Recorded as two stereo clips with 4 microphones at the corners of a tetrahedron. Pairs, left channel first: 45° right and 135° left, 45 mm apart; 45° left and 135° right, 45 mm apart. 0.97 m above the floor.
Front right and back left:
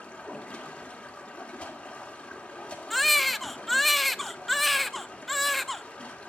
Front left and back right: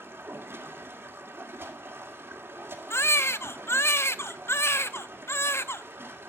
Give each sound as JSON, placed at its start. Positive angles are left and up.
{"t": 0.0, "sound": "running water", "azimuth_deg": -105, "distance_m": 2.5}
{"t": 2.9, "sound": "a baby crying", "azimuth_deg": 45, "distance_m": 0.5}